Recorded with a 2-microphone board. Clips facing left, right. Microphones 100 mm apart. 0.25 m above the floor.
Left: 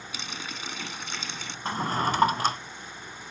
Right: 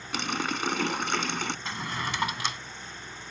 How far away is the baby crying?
I don't hear a baby crying.